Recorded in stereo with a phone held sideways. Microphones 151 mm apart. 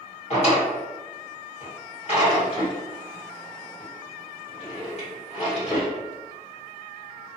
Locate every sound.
0.3 s a drawer: 45° left (ahead or behind), 1.4 m